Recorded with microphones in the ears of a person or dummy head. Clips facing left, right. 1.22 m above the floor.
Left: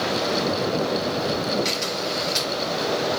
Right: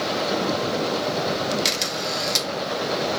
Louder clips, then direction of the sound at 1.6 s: Left 1 dB; 65° right (ahead or behind).